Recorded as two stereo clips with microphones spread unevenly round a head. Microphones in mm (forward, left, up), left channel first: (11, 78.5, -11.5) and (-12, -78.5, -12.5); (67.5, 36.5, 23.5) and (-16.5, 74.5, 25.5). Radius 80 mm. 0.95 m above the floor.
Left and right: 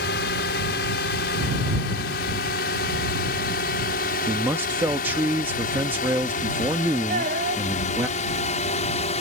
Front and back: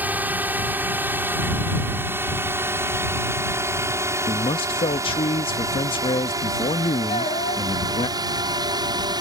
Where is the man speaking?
20° right.